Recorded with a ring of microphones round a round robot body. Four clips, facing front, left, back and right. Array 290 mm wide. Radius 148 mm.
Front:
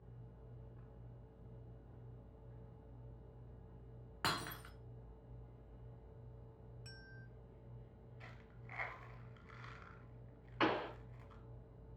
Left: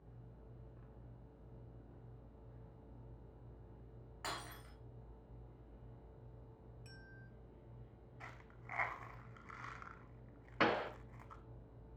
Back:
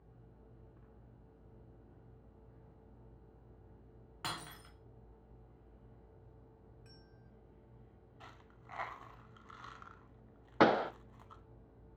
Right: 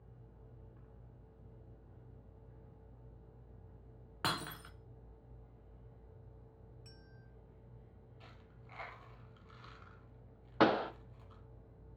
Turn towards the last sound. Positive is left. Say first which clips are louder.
# right 6 dB, back 8 dB
turn(degrees=-155)